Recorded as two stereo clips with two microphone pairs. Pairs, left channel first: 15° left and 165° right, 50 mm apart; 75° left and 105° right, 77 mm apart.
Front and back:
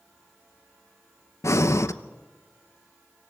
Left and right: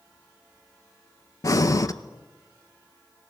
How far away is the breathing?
About 0.8 m.